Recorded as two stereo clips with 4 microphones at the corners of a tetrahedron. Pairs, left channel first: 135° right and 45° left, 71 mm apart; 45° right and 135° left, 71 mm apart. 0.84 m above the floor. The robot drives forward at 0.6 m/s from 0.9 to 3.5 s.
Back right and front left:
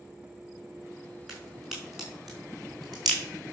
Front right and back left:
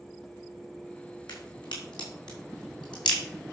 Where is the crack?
40° right, 6 m; by 3.2 s 50° right, 5 m.